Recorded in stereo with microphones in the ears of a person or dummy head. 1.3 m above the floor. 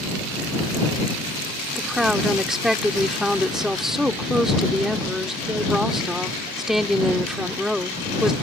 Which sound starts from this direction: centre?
A woman speaking, at 1.8 s.